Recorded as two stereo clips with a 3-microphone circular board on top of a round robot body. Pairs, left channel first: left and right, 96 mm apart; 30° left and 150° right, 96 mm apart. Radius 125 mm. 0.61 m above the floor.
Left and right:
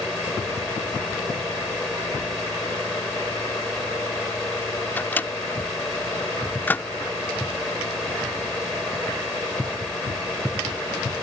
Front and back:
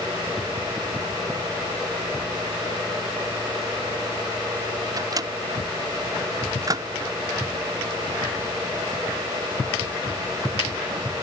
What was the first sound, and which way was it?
A microwave, 160° left.